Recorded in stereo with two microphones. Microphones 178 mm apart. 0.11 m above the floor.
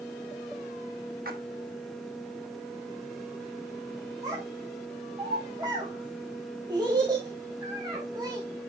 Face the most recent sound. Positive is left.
turn(degrees=-25)  # may be behind; listen again after turning